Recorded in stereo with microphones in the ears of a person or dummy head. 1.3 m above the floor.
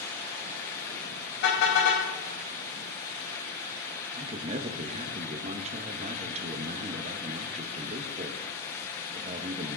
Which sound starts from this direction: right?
A man speaking, at 4.2 s.